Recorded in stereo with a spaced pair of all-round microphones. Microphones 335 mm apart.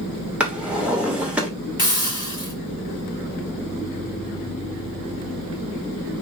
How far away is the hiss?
About 1.8 m.